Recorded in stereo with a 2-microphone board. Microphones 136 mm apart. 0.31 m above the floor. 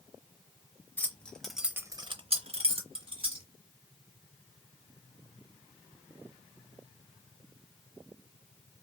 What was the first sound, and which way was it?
Keys jangling, 15° left (ahead or behind).